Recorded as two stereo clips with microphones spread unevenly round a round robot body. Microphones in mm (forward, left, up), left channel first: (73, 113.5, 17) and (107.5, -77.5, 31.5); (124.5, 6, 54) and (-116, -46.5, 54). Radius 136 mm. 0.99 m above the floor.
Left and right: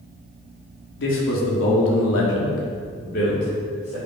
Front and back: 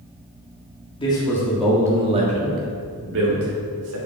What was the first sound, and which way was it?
A man speaking, 85° left.